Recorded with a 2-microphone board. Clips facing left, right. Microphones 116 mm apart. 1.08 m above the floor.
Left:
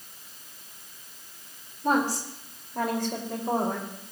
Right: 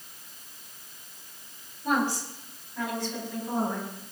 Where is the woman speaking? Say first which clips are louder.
Left 2 dB; 40° left (ahead or behind), 3.5 m; by 3.9 s 65° left (ahead or behind), 5 m.